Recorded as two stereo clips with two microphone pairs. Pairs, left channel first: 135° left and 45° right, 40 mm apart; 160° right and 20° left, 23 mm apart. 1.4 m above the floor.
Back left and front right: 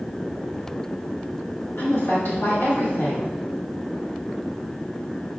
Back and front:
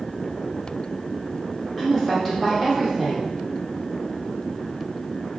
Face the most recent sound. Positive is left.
turn(degrees=115)